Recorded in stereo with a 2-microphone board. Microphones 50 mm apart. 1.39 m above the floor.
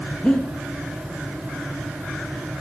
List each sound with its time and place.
0.2 s breathing: 20° left (ahead or behind), 0.7 m